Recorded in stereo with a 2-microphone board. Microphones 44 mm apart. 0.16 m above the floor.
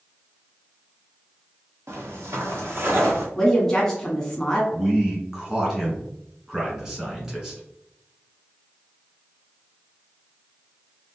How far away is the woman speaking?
About 1.2 m.